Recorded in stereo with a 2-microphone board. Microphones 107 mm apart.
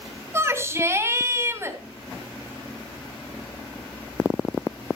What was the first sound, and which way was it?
A shout, 25° right (ahead or behind).